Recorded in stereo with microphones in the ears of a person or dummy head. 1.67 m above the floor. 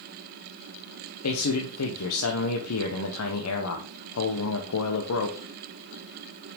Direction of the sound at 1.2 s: 85° left.